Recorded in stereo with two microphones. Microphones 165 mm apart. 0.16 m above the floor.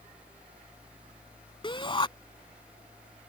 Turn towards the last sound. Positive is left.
turn(degrees=30)  # may be behind; listen again after turning